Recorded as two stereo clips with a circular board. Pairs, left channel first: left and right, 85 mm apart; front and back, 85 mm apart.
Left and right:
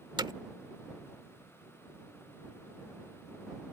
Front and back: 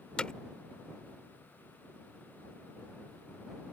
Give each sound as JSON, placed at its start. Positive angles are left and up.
{"t": 0.2, "sound": "hammering", "azimuth_deg": -80}